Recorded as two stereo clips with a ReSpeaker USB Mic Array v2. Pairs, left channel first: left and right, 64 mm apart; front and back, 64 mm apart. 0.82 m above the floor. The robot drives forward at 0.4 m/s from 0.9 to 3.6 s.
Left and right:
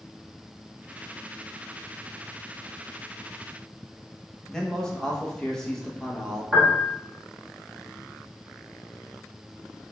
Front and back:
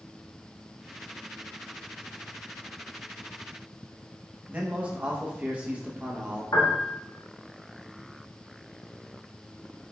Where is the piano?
10° right, 1.2 m.